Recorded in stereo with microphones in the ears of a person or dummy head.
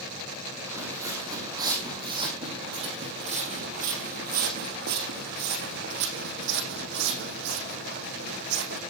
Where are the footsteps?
15° right (ahead or behind), 4.5 m; by 8.8 s 65° right (ahead or behind), 5 m.